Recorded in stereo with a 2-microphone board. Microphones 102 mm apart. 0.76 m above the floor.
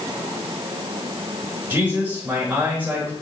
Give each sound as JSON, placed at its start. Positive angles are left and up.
{"t": 1.7, "sound": "a man speaking", "side_deg": -20, "distance_m": 3.5}